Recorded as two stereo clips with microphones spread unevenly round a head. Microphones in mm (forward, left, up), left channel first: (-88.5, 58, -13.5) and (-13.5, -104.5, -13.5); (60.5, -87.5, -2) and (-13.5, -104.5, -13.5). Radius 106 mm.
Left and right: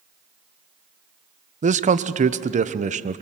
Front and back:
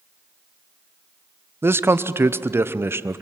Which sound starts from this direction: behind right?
A man speaking, at 1.6 s.